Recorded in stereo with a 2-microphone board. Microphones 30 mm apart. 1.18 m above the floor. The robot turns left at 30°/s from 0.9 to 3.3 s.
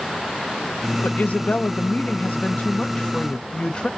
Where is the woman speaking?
105° left, 0.7 m; by 3.9 s 40° left, 0.7 m.